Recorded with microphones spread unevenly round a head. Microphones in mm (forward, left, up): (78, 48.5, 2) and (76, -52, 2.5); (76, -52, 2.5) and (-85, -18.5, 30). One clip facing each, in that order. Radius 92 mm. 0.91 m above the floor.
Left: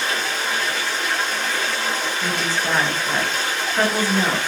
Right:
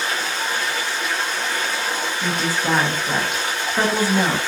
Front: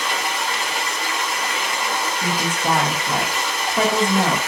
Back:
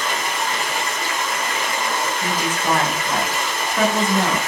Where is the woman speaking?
30° right, 0.8 m.